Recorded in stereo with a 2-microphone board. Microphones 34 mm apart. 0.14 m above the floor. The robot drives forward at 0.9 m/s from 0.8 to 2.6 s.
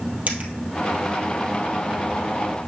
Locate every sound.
0.3 s a dropped coin: 50° right (ahead or behind), 2 m